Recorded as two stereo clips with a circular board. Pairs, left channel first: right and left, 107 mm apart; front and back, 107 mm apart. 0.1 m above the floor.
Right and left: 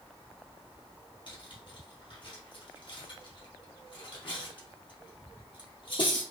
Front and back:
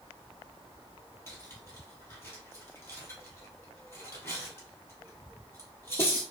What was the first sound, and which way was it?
Cutlery clinking, 60° right.